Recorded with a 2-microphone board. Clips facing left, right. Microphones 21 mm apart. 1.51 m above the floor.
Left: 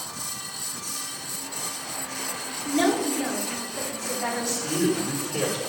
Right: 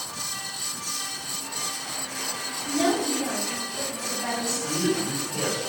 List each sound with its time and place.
2.6 s a woman speaking: 60° left (ahead or behind), 4.5 m
4.5 s a man speaking: 80° left, 4 m